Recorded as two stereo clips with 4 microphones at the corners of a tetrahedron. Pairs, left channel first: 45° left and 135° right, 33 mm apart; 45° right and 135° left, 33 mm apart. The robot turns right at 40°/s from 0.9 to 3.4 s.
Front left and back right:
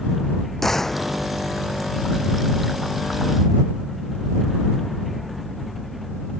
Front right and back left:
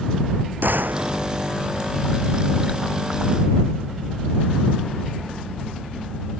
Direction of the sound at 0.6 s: 125° left.